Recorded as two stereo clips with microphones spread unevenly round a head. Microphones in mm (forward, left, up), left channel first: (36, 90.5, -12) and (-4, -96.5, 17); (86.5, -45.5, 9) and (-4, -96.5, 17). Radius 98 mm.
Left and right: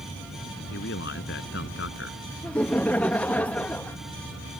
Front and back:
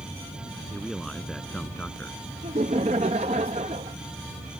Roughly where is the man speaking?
Behind left.